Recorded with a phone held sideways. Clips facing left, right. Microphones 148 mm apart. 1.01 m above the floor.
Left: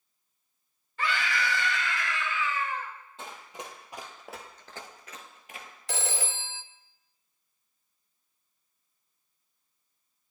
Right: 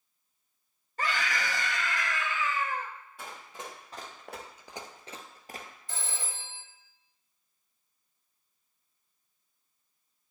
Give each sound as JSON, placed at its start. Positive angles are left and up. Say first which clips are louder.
{"t": 1.0, "sound": "a scream", "louder": "left 2 dB", "side_deg": -40, "distance_m": 1.3}
{"t": 3.2, "sound": "running footsteps", "louder": "left 1 dB", "side_deg": 25, "distance_m": 2.0}
{"t": 5.9, "sound": "a phone ringing", "louder": "left 8 dB", "side_deg": 70, "distance_m": 0.5}